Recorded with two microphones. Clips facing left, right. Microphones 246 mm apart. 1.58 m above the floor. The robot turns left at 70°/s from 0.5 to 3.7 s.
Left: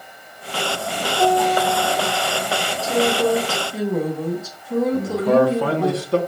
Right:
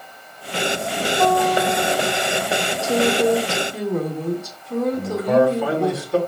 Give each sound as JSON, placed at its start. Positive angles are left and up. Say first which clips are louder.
{"t": 1.2, "sound": "a guitar", "louder": "left 1 dB", "azimuth_deg": 5, "distance_m": 1.4}
{"t": 2.8, "sound": "a woman speaking", "louder": "right 1 dB", "azimuth_deg": -120, "distance_m": 2.0}
{"t": 4.9, "sound": "a man speaking", "louder": "left 1 dB", "side_deg": 70, "distance_m": 2.0}